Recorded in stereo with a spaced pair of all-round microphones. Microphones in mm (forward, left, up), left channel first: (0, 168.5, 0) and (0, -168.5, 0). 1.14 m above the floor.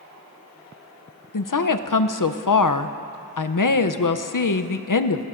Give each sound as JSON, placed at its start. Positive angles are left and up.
{"t": 1.3, "sound": "a woman speaking", "side_deg": 65, "distance_m": 0.6}